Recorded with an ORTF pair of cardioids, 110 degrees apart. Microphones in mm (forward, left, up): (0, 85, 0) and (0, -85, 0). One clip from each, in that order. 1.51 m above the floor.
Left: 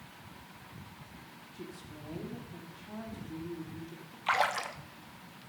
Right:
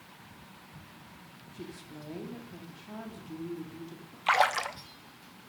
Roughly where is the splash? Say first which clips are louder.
Right 4 dB; ahead right.